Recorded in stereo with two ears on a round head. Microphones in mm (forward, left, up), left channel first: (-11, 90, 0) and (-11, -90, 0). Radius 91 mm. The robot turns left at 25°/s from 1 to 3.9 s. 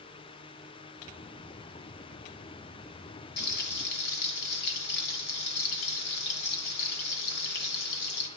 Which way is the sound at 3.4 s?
60° left (ahead or behind).